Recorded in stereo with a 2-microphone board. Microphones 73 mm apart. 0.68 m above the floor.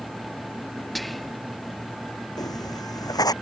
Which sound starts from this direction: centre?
Whispering, at 0.9 s.